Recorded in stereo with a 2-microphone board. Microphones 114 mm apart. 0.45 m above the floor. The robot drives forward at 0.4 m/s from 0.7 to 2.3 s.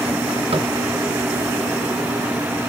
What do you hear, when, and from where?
0.5 s tapping: 65° right (ahead or behind), 0.8 m